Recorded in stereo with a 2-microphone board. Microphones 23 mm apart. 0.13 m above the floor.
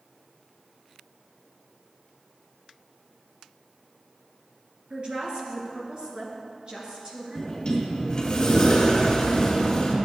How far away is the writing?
I don't hear writing.